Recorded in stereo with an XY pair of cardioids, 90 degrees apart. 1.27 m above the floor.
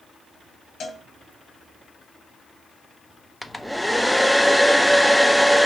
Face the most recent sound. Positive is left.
turn(degrees=5)